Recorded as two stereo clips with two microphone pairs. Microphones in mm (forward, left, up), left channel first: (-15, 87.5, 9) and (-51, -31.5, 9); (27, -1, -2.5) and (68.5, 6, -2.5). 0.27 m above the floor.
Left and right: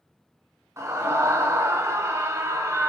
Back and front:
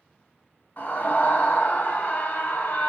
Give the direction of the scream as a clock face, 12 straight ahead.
5 o'clock.